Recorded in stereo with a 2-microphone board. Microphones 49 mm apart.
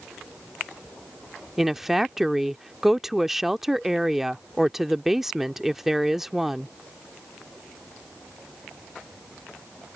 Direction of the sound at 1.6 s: 5° right (ahead or behind).